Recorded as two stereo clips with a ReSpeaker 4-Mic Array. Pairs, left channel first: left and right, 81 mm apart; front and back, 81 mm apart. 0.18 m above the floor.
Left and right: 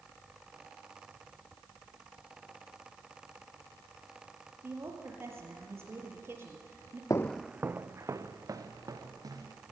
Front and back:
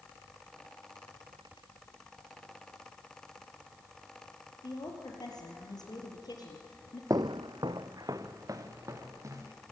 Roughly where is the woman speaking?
Ahead right.